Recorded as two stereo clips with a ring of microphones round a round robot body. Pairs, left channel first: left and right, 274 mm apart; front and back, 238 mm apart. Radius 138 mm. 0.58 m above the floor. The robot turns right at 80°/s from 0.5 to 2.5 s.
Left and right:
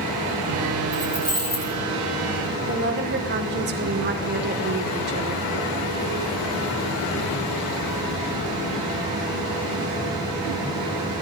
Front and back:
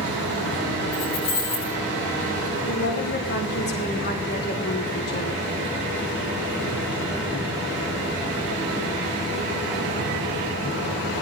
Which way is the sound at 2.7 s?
45° right.